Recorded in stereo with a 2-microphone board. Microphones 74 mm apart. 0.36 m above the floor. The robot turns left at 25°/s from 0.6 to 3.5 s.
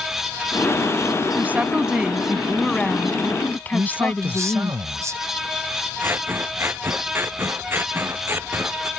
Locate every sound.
1.4 s a woman speaking: 155° right; by 4.7 s 155° left
3.7 s a man speaking: 45° right (ahead or behind)
6.0 s scissors: 30° right (ahead or behind)